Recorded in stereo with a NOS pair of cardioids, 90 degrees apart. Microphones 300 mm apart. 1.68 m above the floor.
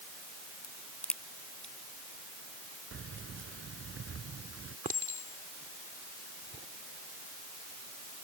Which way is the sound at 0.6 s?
5° left.